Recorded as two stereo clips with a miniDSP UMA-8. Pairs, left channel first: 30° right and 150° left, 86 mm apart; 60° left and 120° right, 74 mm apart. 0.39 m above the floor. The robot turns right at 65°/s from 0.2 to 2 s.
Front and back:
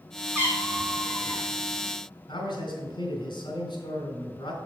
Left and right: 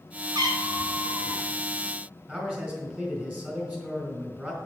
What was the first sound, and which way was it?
A cat meowing, 150° right.